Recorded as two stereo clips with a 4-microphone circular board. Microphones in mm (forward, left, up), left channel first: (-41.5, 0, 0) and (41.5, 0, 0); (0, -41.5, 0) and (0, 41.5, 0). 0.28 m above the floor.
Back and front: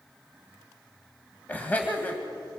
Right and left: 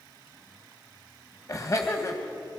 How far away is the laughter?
About 1.7 m.